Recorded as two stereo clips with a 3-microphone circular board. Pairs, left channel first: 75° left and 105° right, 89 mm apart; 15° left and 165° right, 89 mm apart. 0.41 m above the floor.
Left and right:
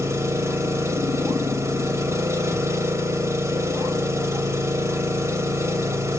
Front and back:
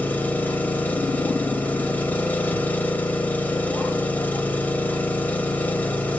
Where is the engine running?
55° right, 1.4 m.